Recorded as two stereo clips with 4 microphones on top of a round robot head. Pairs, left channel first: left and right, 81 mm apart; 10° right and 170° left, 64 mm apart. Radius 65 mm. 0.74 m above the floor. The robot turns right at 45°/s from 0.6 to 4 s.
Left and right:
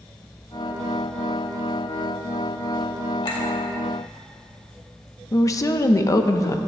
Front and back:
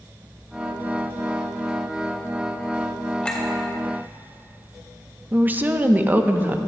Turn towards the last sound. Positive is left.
turn(degrees=120)